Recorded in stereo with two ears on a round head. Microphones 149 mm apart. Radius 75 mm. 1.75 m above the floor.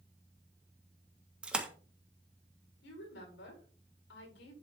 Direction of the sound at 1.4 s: 5° right (ahead or behind).